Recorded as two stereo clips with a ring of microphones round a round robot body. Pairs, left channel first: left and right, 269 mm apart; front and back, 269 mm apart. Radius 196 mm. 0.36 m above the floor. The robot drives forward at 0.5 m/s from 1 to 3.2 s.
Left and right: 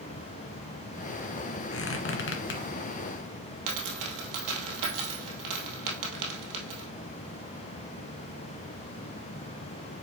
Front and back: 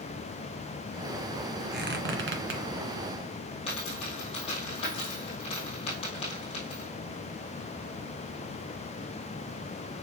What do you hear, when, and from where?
1.7 s a squeak: 125° left, 1.7 m; by 2.6 s 140° left, 2 m
3.7 s a dropped coin: 75° right, 2 m